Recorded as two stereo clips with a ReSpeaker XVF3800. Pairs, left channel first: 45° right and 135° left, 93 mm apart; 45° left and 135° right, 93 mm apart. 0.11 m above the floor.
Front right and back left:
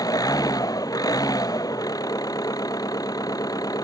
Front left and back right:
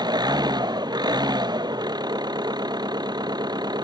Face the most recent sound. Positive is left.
turn(degrees=-95)